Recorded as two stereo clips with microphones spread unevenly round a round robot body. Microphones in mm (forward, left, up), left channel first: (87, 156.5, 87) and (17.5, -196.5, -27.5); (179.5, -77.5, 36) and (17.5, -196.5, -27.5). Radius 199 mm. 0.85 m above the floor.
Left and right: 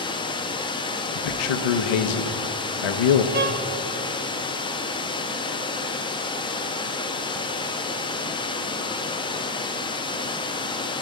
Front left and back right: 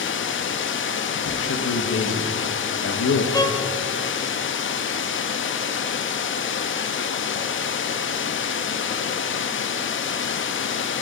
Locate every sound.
0.0 s running water: 5° right, 0.7 m
1.1 s a man speaking: 65° left, 0.8 m
3.3 s a violin: 40° right, 1.0 m